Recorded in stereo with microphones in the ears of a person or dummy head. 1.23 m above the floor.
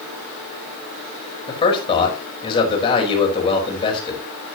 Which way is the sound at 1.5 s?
25° left (ahead or behind).